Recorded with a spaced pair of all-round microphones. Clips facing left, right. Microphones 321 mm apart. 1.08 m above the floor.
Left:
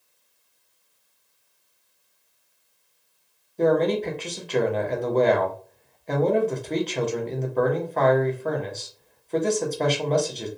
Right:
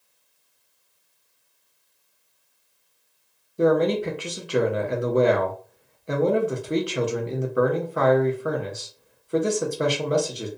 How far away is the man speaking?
About 0.5 m.